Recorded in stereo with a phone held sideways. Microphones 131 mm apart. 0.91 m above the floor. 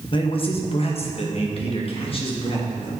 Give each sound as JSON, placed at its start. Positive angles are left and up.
{"t": 0.1, "sound": "a man speaking", "side_deg": 40, "distance_m": 0.9}